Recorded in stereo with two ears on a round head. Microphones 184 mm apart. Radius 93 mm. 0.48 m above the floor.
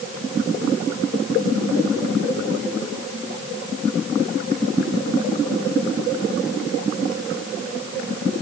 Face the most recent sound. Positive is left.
No sound to turn to.